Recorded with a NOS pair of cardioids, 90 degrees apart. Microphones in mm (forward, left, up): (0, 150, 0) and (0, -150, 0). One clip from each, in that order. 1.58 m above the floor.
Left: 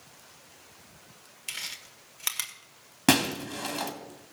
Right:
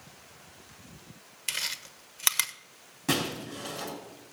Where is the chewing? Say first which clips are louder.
Right 4 dB; 30° right, 1.3 m.